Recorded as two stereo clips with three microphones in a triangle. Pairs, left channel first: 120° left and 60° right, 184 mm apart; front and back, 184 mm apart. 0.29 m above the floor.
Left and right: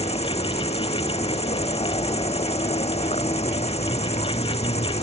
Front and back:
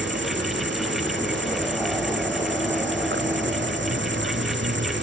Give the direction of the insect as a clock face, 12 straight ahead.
6 o'clock.